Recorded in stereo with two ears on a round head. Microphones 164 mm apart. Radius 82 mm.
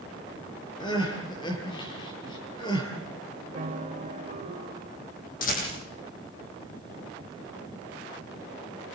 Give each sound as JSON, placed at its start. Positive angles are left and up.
{"t": 0.8, "sound": "crying", "side_deg": 25, "distance_m": 7.0}
{"t": 3.5, "sound": "a piano", "side_deg": -40, "distance_m": 1.4}
{"t": 5.4, "sound": "a rattle", "side_deg": 50, "distance_m": 10.0}